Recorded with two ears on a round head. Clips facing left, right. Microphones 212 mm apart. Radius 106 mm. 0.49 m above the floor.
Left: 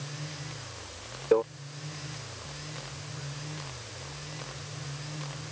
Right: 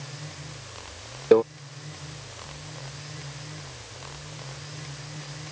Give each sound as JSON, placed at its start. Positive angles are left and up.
{"t": 1.3, "sound": "a microwave", "side_deg": -55}